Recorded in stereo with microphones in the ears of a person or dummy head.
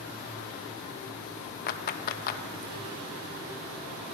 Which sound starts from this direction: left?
A clap, at 1.7 s.